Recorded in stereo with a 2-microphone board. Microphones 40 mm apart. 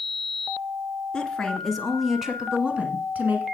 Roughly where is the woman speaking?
Centre.